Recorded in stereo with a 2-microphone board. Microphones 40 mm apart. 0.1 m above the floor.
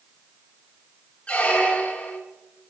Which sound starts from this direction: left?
A squeak, at 1.3 s.